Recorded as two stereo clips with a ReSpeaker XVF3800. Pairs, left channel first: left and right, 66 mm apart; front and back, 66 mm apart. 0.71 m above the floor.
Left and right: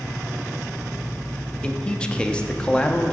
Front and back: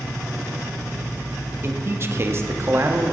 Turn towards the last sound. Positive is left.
turn(degrees=155)